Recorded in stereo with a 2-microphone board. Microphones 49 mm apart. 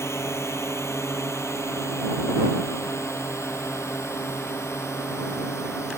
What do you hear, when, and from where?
0.0 s a drone: 70° left (ahead or behind)